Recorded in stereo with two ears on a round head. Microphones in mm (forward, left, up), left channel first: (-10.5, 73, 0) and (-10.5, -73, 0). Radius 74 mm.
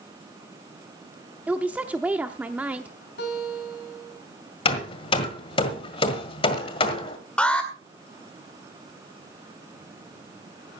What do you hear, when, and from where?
1.5 s a woman speaking: 10° right (ahead or behind), 0.7 m
3.2 s a guitar: 80° left, 4.5 m
4.7 s hammering: 35° left (ahead or behind), 1.7 m
7.4 s an alarm: 5° left (ahead or behind), 2.0 m